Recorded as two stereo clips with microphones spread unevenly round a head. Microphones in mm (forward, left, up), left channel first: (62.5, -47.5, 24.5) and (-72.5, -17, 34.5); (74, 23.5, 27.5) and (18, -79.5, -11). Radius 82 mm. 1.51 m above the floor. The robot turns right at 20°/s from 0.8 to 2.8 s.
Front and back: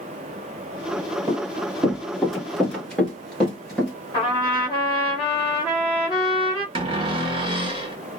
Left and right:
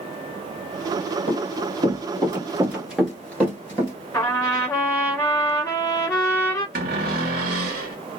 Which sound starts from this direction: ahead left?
A trumpet, at 4.1 s.